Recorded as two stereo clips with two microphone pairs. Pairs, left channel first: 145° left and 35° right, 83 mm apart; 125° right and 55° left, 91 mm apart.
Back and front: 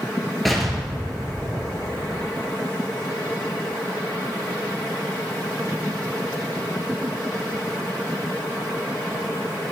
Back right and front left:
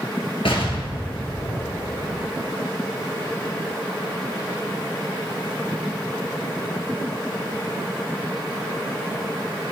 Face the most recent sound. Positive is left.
turn(degrees=-125)